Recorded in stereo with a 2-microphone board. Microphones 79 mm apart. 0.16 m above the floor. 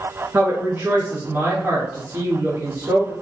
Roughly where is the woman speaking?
Right.